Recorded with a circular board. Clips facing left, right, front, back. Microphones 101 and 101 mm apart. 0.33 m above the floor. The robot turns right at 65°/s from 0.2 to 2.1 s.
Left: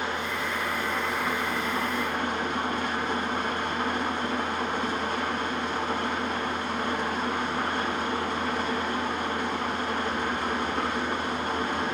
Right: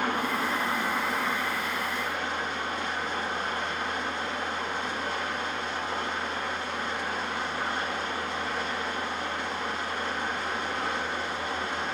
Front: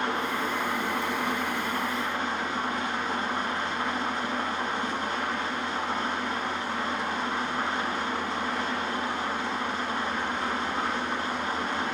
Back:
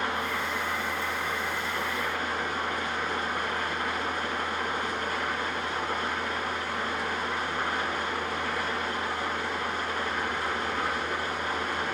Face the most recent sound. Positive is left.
turn(degrees=60)